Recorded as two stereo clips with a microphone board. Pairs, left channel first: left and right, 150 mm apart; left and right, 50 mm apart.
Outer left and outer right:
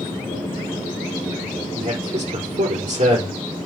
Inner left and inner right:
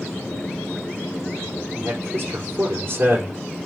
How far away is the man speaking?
About 4.5 m.